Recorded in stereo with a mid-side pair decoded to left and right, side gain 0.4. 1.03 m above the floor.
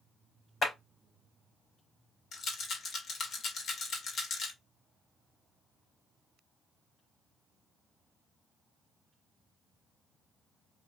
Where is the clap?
45° left, 3.5 m.